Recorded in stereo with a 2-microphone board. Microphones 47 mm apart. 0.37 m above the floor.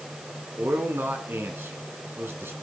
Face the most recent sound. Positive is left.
turn(degrees=-60)  # may be behind; listen again after turning